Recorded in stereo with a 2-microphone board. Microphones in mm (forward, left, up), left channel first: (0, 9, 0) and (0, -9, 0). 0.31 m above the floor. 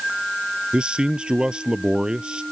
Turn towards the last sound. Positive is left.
turn(degrees=-80)